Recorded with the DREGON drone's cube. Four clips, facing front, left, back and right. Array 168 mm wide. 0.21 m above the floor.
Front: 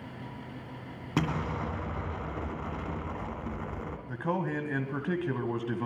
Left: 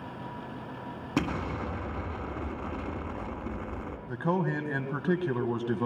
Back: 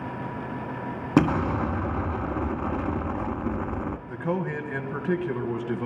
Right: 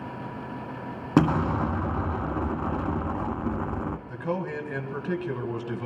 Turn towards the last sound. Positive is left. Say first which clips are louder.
# left 5 dB, back 1 dB
turn(degrees=75)